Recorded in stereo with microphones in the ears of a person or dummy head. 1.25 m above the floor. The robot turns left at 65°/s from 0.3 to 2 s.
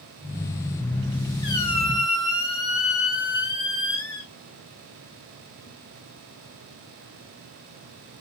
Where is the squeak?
30° left, 4 m; by 4.3 s 10° right, 4 m.